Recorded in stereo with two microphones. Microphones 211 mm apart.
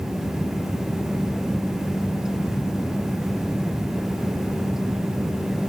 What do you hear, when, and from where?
Only background noise.